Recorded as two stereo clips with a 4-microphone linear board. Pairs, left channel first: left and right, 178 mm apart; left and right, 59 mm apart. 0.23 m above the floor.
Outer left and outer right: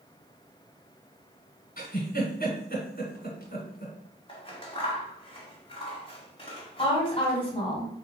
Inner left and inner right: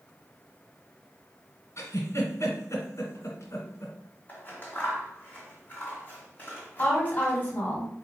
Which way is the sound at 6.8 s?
30° left (ahead or behind).